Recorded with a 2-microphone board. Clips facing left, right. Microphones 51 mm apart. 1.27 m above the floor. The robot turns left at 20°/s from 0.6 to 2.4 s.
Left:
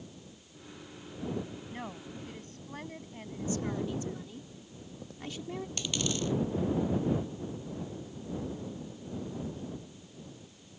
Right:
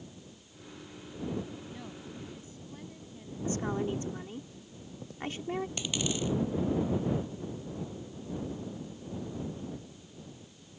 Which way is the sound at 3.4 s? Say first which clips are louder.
Right 2 dB; 40° right (ahead or behind).